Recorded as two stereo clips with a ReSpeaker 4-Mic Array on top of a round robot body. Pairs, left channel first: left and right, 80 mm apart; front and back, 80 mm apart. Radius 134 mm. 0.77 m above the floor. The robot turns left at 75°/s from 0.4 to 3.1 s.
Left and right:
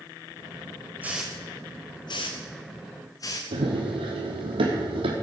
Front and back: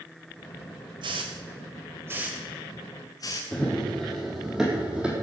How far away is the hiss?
About 0.6 m.